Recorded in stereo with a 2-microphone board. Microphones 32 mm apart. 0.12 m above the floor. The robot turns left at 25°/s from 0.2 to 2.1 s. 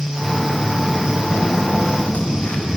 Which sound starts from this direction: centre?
Footsteps, at 0.2 s.